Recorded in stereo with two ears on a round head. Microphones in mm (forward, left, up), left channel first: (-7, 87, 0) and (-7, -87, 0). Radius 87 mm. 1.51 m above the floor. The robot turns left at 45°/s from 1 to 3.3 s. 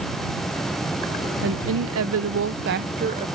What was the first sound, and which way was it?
A woman speaking, 65° right.